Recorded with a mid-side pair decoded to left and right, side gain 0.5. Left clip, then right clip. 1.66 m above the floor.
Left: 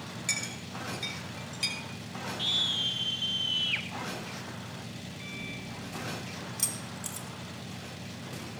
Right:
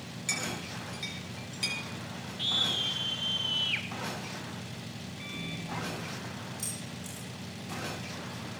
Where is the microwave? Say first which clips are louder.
Right 1 dB; 10° right, 3 m.